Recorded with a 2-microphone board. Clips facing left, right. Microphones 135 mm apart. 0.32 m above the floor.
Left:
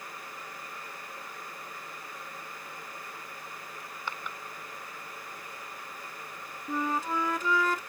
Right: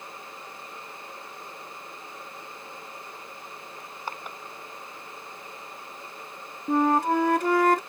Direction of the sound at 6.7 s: 65° right (ahead or behind).